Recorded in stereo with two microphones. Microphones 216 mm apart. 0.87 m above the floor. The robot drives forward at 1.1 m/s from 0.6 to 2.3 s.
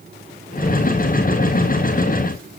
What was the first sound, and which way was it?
Only background noise.